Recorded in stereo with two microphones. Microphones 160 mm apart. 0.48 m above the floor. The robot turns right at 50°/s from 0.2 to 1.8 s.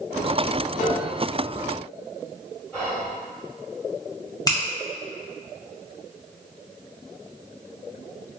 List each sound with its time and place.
0.8 s a piano: 50° left (ahead or behind), 1.7 m; by 1.2 s 45° left (ahead or behind), 1.7 m
2.7 s whispering: 5° right (ahead or behind), 1.7 m
4.5 s a finger snap: 25° left (ahead or behind), 0.7 m